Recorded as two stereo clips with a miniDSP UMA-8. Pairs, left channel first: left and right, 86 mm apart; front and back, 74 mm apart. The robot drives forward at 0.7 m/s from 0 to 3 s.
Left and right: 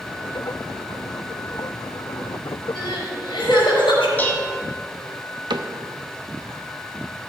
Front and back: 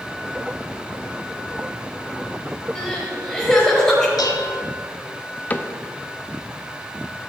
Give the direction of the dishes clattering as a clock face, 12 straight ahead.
11 o'clock.